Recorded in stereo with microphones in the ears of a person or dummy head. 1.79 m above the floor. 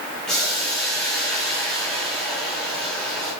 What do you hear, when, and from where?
0.3 s boiling: centre (ahead or behind), 3 m